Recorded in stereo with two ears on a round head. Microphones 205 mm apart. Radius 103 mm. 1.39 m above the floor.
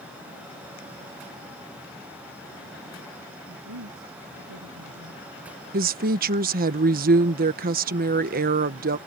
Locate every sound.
3.5 s a woman speaking: 80° right; by 5.2 s 85° right
5.7 s a woman speaking: 40° right (ahead or behind)